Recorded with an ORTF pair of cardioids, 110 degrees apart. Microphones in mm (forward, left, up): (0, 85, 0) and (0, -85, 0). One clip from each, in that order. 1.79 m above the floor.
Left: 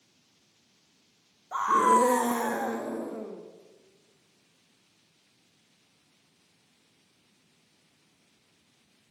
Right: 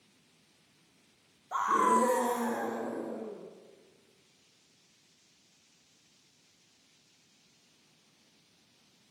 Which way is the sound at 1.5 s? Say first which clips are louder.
Left 4 dB; straight ahead.